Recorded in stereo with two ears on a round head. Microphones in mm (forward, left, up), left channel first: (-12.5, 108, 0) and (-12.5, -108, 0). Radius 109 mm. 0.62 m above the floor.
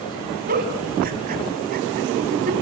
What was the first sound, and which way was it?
A giggle, 35° right (ahead or behind).